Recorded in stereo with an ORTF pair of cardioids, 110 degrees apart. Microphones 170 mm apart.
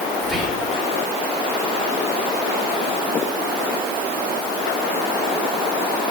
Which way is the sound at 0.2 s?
Straight ahead.